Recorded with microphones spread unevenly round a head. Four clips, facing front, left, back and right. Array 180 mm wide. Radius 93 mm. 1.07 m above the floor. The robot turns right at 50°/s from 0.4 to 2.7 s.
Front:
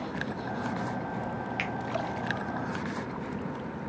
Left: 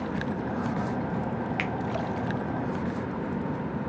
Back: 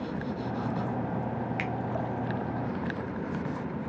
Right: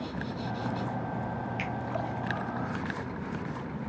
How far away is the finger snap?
About 0.6 m.